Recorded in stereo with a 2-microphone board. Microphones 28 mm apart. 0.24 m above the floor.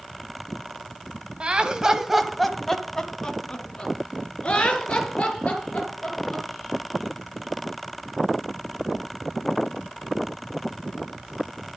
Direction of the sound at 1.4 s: 40° right (ahead or behind).